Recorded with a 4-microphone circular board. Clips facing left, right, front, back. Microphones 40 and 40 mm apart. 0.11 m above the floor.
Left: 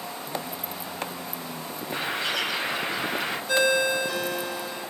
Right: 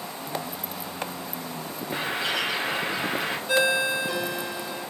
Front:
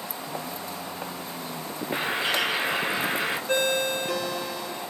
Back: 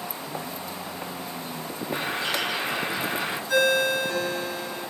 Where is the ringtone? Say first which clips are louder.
Left 1 dB, back 5 dB; 15° right, 1.1 m.